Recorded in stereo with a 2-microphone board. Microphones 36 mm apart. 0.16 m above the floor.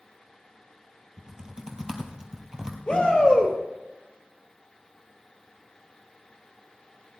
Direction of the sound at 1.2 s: 20° right (ahead or behind).